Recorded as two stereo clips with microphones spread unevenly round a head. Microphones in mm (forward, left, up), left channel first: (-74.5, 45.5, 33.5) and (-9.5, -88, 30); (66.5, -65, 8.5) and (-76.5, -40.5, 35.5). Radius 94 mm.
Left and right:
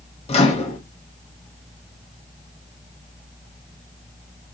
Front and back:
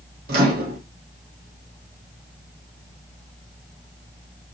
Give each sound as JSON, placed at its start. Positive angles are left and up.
{"t": 0.3, "sound": "a microwave", "azimuth_deg": 155, "distance_m": 0.8}